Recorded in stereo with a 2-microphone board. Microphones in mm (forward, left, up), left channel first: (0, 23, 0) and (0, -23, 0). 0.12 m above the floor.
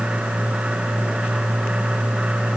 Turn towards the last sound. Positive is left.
No sound to turn to.